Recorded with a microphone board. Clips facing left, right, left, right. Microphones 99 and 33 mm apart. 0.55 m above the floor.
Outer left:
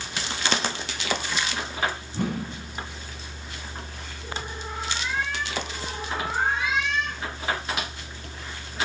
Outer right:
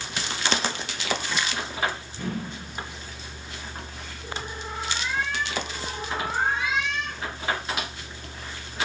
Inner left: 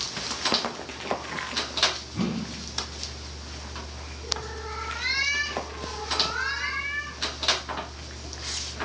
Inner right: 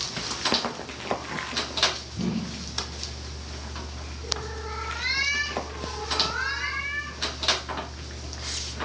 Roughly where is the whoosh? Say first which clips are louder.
Outer left 3 dB, even; left.